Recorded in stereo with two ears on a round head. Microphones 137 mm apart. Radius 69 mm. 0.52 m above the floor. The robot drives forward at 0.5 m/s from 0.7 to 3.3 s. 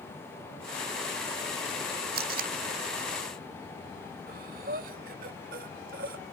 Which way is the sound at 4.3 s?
65° right (ahead or behind).